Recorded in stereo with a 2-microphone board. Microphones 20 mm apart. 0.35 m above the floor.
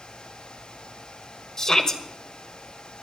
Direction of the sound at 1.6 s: 35° left (ahead or behind).